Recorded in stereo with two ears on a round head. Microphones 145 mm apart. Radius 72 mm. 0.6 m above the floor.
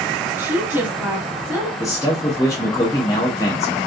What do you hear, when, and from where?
0.4 s a woman speaking: 10° right (ahead or behind), 1.1 m
1.8 s a man speaking: 20° left (ahead or behind), 0.7 m